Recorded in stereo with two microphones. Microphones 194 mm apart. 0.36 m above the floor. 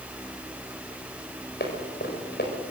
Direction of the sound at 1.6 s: 60° left (ahead or behind).